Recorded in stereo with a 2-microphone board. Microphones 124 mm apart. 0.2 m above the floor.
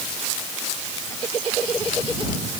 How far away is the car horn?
I don't hear a car horn.